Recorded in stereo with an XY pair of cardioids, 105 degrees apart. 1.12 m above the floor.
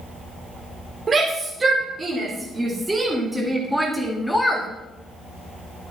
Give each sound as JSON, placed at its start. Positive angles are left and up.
{"t": 1.1, "sound": "a shout", "azimuth_deg": -35, "distance_m": 3.5}